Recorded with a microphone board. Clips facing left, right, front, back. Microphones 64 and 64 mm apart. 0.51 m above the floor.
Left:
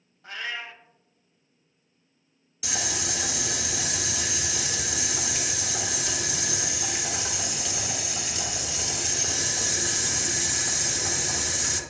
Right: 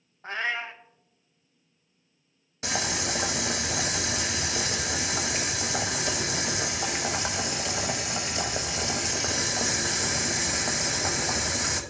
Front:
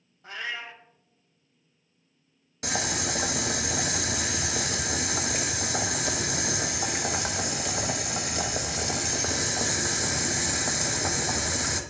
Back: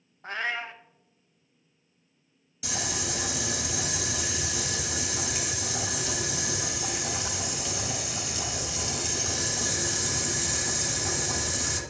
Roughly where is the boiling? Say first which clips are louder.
Right 3 dB, front 4 dB; ahead right.